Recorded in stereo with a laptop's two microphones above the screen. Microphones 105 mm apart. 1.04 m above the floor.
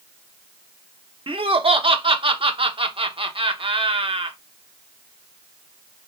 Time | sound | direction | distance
1.3 | laughter | 60° right (ahead or behind) | 0.7 m